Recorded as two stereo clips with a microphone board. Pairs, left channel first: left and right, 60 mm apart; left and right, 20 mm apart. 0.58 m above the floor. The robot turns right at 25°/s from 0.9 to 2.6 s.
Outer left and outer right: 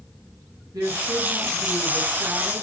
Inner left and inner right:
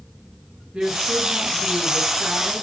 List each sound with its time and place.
0.7 s a woman speaking: 90° right, 7 m; by 2.6 s 45° right, 7 m